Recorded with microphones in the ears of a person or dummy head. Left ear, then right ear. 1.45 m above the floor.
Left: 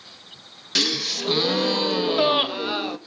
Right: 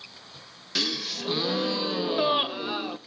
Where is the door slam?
I don't hear a door slam.